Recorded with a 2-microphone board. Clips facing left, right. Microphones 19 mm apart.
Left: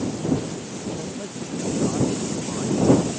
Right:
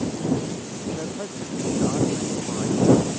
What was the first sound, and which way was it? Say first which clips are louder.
A man speaking: right 1 dB; 35° right (ahead or behind).